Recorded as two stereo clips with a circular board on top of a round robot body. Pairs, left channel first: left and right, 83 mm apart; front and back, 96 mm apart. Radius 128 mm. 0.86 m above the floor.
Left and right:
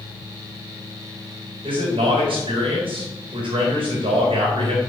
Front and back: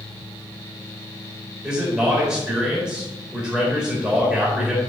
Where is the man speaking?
100° right, 4 m.